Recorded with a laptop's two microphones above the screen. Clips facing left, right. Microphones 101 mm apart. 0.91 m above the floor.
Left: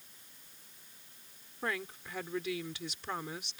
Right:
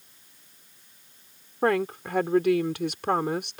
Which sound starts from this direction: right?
A woman speaking, at 1.6 s.